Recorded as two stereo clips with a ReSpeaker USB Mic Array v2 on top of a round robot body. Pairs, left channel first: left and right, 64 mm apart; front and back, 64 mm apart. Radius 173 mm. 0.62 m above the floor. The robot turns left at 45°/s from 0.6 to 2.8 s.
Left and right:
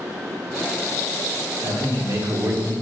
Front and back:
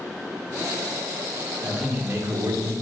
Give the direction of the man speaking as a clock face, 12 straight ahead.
3 o'clock.